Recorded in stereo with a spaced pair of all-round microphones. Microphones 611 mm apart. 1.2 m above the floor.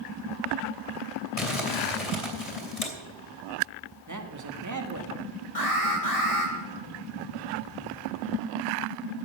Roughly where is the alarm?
Left.